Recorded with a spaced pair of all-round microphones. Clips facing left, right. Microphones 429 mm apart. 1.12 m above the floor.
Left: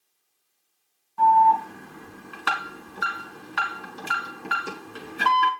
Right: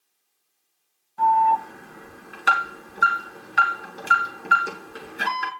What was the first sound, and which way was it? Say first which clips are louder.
An alarm: left 2 dB; 15° left (ahead or behind).